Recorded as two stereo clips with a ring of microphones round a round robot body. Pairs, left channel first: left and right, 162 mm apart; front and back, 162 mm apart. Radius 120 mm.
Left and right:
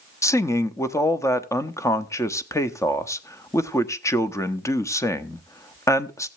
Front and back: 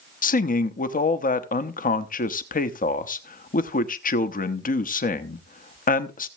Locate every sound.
0.2 s a man speaking: 20° left, 1.0 m